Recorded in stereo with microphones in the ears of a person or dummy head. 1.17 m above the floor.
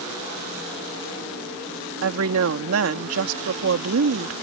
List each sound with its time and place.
2.0 s a woman speaking: 80° right